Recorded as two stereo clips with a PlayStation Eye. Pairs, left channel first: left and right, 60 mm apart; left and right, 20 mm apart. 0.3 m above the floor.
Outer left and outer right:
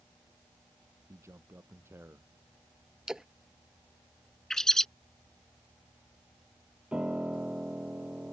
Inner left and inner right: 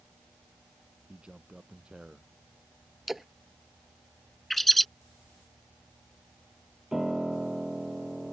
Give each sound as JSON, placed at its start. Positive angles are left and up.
{"t": 1.1, "sound": "a man speaking", "side_deg": -50}
{"t": 3.1, "sound": "a splash", "side_deg": -10}
{"t": 4.5, "sound": "a bird", "side_deg": 5}
{"t": 6.9, "sound": "a piano", "side_deg": -20}